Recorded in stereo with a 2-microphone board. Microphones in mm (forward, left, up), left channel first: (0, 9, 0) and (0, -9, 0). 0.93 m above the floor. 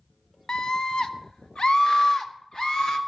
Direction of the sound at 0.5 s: 45° left (ahead or behind).